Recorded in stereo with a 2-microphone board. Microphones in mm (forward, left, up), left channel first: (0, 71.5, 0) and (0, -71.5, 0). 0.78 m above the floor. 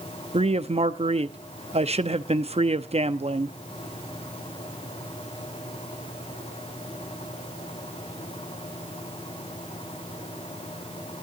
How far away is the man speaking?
About 0.8 m.